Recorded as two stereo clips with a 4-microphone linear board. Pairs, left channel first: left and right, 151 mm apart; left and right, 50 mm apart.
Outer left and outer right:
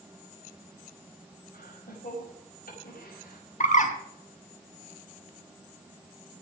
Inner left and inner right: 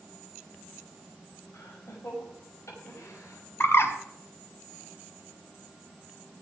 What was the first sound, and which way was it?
Laughter, 80° left.